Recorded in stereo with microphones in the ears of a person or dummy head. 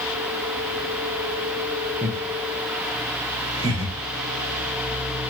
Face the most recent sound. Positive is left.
turn(degrees=-20)  # may be behind; listen again after turning